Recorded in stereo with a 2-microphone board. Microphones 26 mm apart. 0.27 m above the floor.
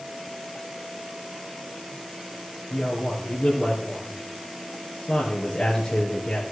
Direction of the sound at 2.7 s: 25° left (ahead or behind).